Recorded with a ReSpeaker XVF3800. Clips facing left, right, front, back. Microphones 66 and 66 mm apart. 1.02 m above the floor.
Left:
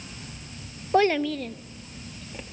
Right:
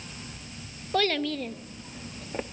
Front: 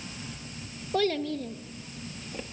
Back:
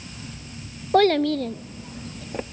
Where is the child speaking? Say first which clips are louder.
Left 5 dB, back 10 dB; 150° left, 0.5 m; by 2.4 s 140° right, 0.9 m.